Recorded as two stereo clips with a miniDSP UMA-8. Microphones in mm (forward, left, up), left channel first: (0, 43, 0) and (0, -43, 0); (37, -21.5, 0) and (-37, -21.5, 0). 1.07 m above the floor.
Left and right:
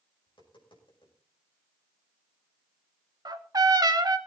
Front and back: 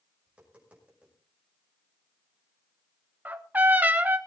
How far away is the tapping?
About 6 m.